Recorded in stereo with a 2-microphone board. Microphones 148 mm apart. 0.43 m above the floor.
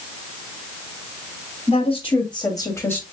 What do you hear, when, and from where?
1.7 s a woman speaking: 45° left (ahead or behind), 3 m; by 3.0 s 10° left (ahead or behind), 1.7 m